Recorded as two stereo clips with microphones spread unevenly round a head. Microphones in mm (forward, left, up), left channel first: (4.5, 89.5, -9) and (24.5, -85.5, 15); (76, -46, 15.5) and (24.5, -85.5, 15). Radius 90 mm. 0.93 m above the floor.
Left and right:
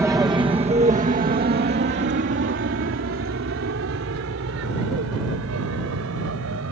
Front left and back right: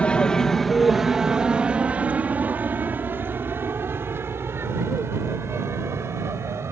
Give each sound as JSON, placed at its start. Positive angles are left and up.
{"t": 0.0, "sound": "an aircraft", "azimuth_deg": -10}